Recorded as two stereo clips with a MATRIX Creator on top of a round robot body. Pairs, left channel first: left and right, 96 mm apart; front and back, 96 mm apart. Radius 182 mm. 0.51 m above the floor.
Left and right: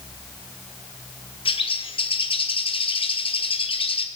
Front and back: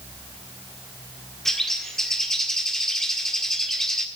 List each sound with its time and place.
1.4 s a bird: 85° left, 1.6 m